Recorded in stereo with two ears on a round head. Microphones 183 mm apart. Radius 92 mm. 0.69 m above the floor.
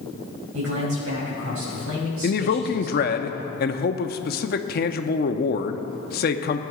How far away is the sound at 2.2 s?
About 0.8 m.